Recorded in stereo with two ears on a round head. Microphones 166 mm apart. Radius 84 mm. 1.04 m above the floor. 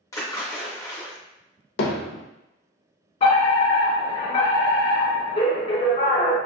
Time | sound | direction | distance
0.1 | a splash | 20° left (ahead or behind) | 0.9 m
1.8 | hammering | 70° left (ahead or behind) | 0.6 m
3.2 | a fire alarm | 35° left (ahead or behind) | 1.9 m